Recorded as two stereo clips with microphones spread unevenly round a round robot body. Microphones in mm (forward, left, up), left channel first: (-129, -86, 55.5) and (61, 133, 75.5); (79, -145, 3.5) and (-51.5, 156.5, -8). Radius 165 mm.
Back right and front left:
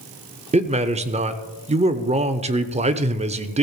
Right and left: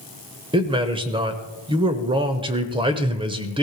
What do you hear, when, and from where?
0.5 s a man speaking: 80° left, 1.0 m